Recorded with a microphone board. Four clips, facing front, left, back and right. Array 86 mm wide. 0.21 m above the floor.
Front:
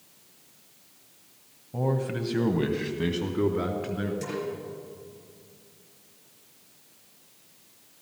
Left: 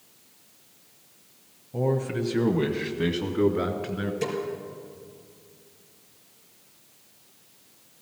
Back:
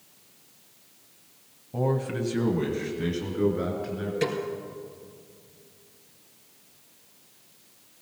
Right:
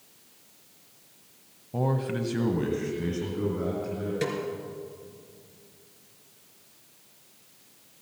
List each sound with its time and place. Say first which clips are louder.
1.7 s a man speaking: left 2 dB, back 1 dB; 110° right, 1.2 m; by 4.1 s 55° left, 2 m
4.2 s a snare drum: left 1 dB, back 6 dB; 145° right, 3.5 m